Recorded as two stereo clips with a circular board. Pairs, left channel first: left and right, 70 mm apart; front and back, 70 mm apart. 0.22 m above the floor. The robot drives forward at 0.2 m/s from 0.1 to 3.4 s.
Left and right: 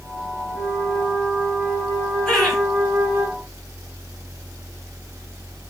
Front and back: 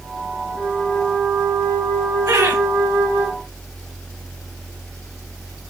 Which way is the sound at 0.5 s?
165° right.